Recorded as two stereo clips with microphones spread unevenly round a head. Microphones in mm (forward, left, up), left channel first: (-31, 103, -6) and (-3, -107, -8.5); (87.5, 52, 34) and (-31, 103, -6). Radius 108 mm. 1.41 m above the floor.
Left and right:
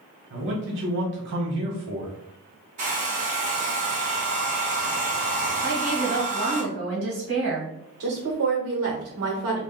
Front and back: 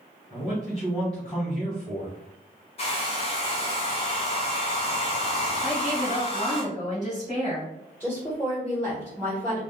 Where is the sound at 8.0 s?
105° right, 1.5 m.